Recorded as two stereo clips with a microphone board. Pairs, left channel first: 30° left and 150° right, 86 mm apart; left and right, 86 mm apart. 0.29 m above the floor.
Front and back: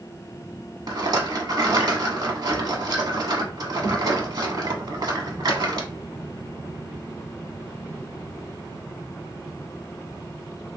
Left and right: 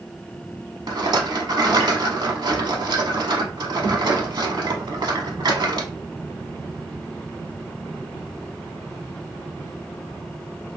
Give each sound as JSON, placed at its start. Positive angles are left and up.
{"t": 0.9, "sound": "a rattle", "azimuth_deg": -120, "distance_m": 0.6}